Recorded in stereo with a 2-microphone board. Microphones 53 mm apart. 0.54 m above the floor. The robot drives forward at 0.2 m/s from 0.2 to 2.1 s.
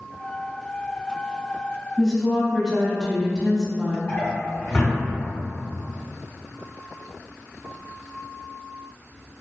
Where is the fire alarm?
No fire alarm in this recording.